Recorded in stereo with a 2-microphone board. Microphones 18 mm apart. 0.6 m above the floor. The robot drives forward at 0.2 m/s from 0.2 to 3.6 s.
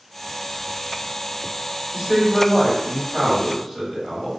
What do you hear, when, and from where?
1.9 s a man speaking: 10° right (ahead or behind), 1.8 m